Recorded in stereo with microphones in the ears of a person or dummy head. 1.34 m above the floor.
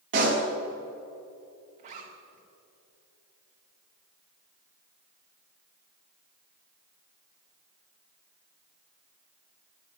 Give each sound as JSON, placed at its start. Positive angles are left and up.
{"t": 0.1, "sound": "a pop", "side_deg": -45, "distance_m": 2.5}
{"t": 1.8, "sound": "a zipper", "side_deg": -40, "distance_m": 1.9}